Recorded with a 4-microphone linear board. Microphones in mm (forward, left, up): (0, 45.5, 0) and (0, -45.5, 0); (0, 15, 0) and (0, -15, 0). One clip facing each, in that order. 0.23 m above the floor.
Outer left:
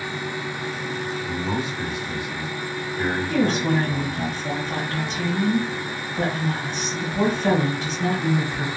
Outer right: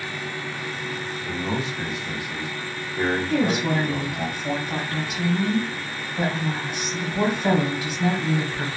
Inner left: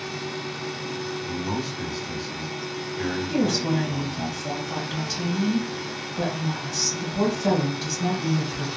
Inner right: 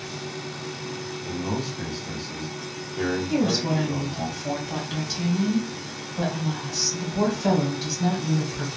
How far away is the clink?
No clink in this recording.